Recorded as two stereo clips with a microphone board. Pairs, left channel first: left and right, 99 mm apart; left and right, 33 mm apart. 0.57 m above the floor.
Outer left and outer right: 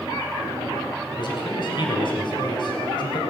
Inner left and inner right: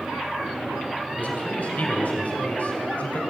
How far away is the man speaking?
About 3.5 m.